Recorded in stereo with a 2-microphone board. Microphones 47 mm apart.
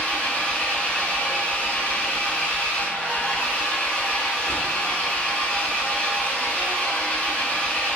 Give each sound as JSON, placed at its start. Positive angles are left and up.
{"t": 0.0, "sound": "an engine running", "side_deg": 30, "distance_m": 0.8}